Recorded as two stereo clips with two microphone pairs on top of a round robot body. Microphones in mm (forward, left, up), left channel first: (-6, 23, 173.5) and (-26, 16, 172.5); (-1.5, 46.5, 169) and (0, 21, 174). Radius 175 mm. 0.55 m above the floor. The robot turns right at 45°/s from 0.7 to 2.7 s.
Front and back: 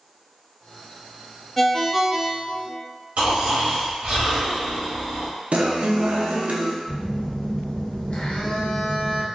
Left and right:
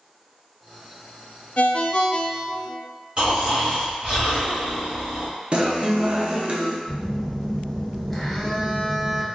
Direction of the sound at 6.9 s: 20° left.